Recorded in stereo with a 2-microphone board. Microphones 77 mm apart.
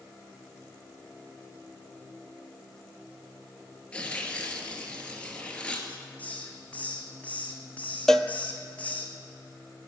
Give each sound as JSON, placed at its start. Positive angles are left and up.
{"t": 3.9, "sound": "tearing paper", "side_deg": 15, "distance_m": 1.9}
{"t": 5.9, "sound": "a hiss", "side_deg": 20, "distance_m": 1.5}
{"t": 8.1, "sound": "a cowbell", "side_deg": 5, "distance_m": 0.6}